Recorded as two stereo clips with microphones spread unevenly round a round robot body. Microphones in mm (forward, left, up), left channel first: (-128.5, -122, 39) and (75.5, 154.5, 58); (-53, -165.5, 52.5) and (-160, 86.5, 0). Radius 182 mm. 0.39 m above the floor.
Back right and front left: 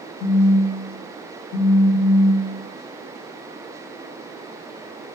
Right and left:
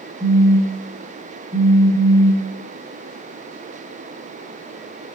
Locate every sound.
0.2 s a phone buzzing: 175° left, 0.8 m